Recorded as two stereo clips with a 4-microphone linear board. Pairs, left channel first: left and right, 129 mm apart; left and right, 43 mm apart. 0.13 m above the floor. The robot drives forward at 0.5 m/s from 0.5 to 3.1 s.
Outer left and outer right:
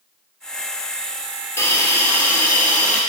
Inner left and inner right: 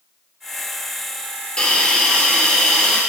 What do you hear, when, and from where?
1.6 s a hiss: 20° left (ahead or behind), 1.1 m; by 3.0 s 10° left (ahead or behind), 1.8 m